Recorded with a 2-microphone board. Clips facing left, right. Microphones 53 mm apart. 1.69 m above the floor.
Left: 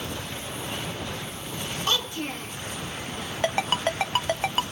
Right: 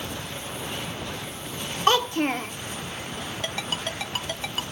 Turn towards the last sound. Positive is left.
turn(degrees=35)  # may be behind; listen again after turning